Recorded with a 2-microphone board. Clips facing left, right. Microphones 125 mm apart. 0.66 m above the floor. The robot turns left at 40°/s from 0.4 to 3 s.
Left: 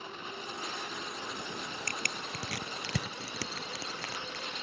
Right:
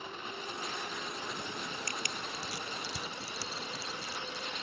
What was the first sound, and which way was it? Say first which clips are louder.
Crushing: even; 55° left (ahead or behind).